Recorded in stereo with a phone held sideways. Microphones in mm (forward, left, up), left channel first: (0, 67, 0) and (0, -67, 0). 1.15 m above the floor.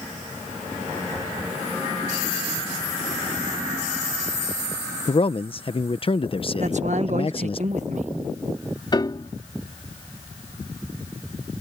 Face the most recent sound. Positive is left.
turn(degrees=35)  # may be behind; listen again after turning